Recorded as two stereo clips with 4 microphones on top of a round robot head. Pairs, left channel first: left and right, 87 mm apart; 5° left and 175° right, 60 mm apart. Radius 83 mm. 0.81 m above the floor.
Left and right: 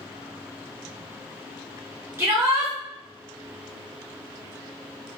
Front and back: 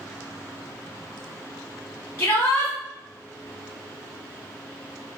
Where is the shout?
30° right, 2 m.